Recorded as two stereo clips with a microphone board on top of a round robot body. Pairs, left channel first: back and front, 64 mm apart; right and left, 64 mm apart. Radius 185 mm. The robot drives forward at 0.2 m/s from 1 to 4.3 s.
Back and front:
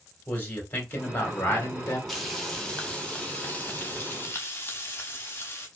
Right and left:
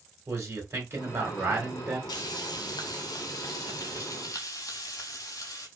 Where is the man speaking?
120° left, 2 m; by 2.0 s 125° left, 2.5 m.